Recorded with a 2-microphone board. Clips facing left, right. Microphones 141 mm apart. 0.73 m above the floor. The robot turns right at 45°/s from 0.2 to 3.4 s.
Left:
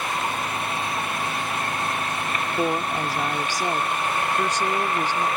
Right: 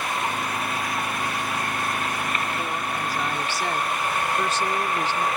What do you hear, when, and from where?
2.6 s a woman speaking: 125° left; by 5.3 s 165° left